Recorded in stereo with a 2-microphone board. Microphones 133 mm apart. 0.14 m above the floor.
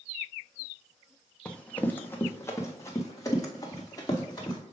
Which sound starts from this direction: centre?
Running footsteps, at 1.4 s.